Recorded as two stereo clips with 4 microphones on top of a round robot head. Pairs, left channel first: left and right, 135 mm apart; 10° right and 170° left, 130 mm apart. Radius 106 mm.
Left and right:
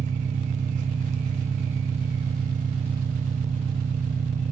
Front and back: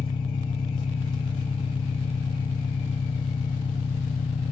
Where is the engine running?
65° right, 0.7 m.